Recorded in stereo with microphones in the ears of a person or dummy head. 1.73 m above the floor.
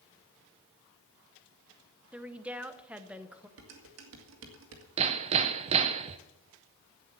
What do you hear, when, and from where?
2.1 s a woman speaking: 5° right (ahead or behind), 0.8 m
3.6 s dishes clattering: 70° right (ahead or behind), 2.0 m
5.0 s hammering: 30° right (ahead or behind), 0.5 m